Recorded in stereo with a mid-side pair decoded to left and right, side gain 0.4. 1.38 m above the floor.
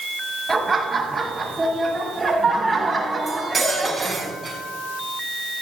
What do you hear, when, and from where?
0.5 s laughter: 25° right, 7.5 m; by 4.3 s 30° right, 9.5 m
3.3 s cutlery clinking: 20° right, 7 m